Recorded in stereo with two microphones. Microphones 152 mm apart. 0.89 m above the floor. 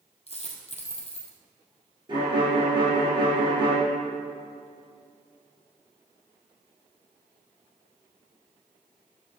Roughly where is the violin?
Right.